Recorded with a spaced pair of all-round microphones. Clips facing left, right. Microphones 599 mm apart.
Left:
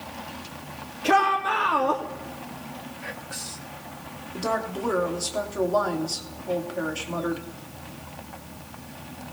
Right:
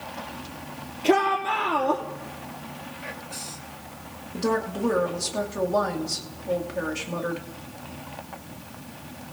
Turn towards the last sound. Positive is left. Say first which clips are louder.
# right 4 dB
turn(degrees=-45)  # may be behind; listen again after turning